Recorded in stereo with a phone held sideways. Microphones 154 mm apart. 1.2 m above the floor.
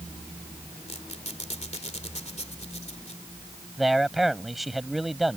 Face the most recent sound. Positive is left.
turn(degrees=0)  # may be behind; listen again after turning